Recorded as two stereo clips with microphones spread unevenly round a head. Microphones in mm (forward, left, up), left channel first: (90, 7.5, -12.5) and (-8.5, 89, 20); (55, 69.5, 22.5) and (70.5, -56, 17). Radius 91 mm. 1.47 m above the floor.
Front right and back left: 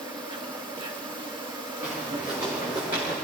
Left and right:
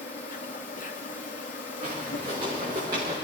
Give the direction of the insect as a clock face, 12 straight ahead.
9 o'clock.